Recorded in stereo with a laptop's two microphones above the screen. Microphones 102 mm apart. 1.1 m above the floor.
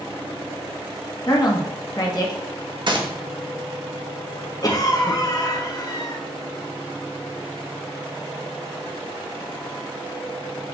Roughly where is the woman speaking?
Left.